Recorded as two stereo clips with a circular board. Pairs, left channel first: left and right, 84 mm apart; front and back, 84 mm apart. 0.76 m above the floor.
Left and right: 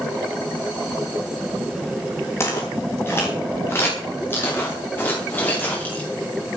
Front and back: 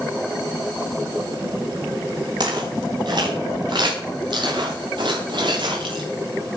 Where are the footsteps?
150° left, 8.5 m; by 6.0 s 160° left, 11 m.